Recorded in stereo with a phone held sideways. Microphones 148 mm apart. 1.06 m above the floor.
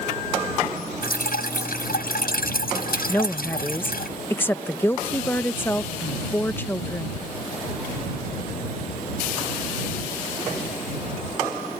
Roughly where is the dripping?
Left.